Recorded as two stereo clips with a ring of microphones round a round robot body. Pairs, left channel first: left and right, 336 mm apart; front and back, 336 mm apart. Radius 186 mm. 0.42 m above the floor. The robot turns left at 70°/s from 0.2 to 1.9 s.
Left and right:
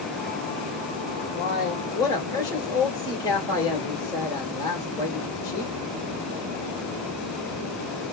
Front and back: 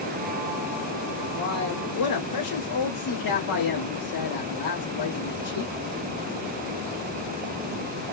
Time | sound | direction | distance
1.4 | a man speaking | 50° left | 1.3 m